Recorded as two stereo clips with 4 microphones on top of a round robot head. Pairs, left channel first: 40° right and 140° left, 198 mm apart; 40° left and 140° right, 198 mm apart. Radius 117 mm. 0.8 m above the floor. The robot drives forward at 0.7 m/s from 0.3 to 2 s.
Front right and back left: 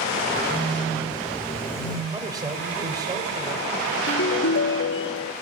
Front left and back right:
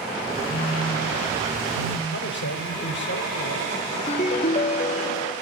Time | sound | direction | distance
0.5 | a phone buzzing | 40° left | 3.5 m
2.1 | a man speaking | 70° left | 3.5 m
4.1 | a ringtone | 15° right | 1.1 m